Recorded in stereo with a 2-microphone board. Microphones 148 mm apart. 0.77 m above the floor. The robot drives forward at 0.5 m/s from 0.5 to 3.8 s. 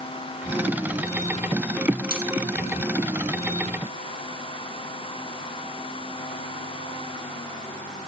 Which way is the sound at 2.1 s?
70° left (ahead or behind).